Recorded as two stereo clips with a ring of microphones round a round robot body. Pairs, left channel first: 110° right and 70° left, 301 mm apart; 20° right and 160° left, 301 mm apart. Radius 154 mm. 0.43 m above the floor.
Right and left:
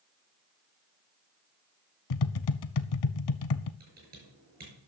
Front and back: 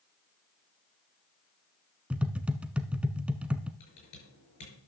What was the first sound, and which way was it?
Tapping, 115° right.